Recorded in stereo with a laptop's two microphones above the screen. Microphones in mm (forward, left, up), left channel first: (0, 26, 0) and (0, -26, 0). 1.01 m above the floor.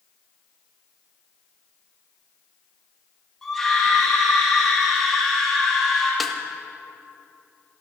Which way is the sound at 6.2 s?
Centre (ahead or behind).